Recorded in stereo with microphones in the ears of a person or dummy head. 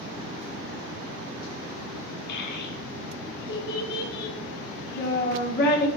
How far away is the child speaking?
About 1.4 m.